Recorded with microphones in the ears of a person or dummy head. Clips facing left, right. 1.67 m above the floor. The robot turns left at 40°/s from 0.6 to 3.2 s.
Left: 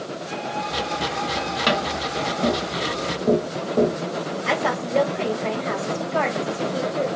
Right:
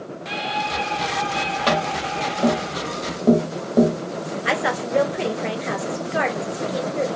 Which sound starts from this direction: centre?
Tapping, at 1.7 s.